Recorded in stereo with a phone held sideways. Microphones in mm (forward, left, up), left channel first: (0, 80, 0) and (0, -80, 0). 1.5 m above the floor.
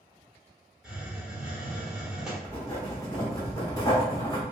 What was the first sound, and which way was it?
A hiss, 5° right (ahead or behind).